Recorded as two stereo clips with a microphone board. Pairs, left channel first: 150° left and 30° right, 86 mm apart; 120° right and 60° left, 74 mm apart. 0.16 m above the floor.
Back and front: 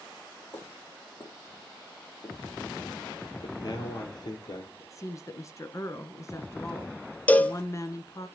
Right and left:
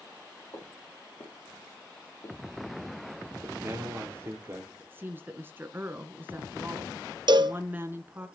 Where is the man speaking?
115° left, 3.5 m.